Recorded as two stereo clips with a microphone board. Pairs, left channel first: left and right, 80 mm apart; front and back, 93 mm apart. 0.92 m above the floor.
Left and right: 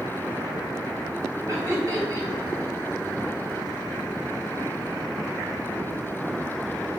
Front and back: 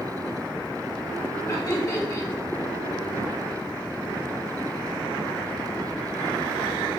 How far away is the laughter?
About 2 m.